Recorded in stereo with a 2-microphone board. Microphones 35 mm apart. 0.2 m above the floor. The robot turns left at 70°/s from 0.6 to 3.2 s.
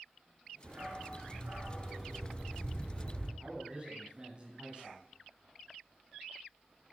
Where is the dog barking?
80° right, 4 m; by 3.3 s 100° left, 4 m.